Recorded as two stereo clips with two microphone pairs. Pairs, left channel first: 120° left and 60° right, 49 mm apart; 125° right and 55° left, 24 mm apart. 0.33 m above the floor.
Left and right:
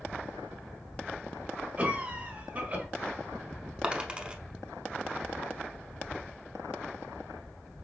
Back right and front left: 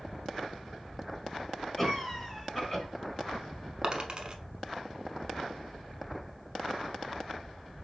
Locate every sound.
1.8 s a cough: 65° right, 1.1 m
3.8 s a dropped coin: 5° left, 0.6 m